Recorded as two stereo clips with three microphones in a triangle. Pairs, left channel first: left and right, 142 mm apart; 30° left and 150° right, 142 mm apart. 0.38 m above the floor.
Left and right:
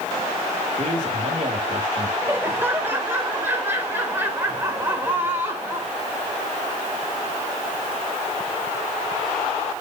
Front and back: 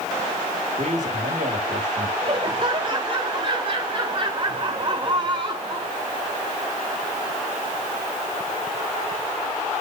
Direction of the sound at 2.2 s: 155° right.